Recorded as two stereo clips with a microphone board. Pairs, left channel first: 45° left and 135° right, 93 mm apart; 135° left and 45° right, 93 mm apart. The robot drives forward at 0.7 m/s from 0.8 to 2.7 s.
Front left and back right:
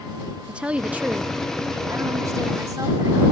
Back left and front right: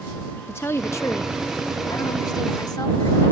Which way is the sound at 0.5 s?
160° left.